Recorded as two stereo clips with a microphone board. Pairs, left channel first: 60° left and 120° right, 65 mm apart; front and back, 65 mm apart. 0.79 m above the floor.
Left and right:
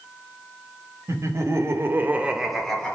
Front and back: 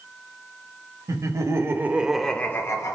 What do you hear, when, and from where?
1.1 s laughter: 160° right, 1.1 m; by 2.9 s 15° right, 0.8 m